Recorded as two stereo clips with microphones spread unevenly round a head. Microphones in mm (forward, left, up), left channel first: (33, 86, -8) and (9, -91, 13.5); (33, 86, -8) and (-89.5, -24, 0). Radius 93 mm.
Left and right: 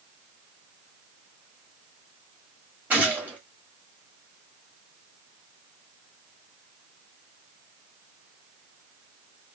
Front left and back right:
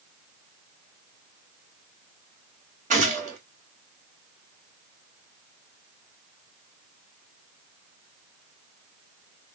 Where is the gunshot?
Straight behind, 1.7 m.